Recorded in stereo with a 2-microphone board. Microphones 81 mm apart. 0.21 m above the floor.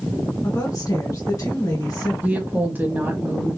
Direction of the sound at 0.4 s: 45° left (ahead or behind).